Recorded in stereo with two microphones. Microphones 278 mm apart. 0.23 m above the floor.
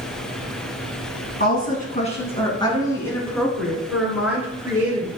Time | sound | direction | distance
1.4 | a woman speaking | 35° left (ahead or behind) | 2.5 m